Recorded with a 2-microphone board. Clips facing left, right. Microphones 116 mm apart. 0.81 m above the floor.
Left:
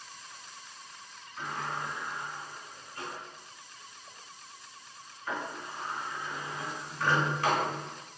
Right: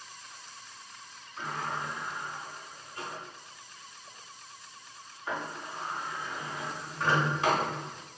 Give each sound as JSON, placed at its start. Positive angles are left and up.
{"t": 1.4, "sound": "a sliding door", "side_deg": -20, "distance_m": 1.7}